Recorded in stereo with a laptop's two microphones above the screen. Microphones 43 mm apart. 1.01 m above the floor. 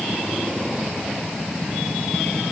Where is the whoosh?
I don't hear a whoosh.